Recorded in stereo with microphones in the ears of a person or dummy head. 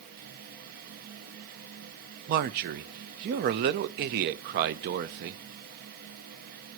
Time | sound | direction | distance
0.0 | a fan | 55° right (ahead or behind) | 1.9 m
2.3 | a man speaking | 55° right (ahead or behind) | 1.0 m